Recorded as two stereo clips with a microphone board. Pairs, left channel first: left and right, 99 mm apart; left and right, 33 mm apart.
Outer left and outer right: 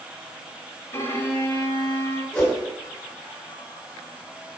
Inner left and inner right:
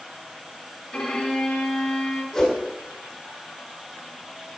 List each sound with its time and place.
0.9 s a violin: 25° left (ahead or behind), 1.7 m
2.3 s a whoosh: 10° left (ahead or behind), 1.7 m